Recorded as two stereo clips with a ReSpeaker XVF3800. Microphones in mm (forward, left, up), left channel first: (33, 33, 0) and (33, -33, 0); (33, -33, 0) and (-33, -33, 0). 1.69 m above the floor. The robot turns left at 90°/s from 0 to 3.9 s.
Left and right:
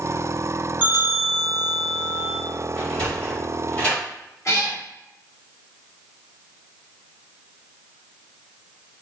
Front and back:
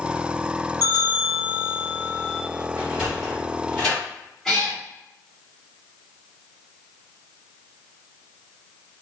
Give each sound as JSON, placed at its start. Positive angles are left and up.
{"t": 0.8, "sound": "a bell", "azimuth_deg": -25, "distance_m": 1.3}
{"t": 2.8, "sound": "a sliding door", "azimuth_deg": 150, "distance_m": 1.6}
{"t": 4.5, "sound": "a cat meowing", "azimuth_deg": 80, "distance_m": 1.8}